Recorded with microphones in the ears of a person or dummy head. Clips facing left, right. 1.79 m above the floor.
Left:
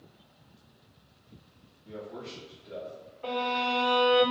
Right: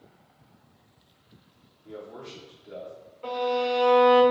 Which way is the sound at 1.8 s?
25° right (ahead or behind).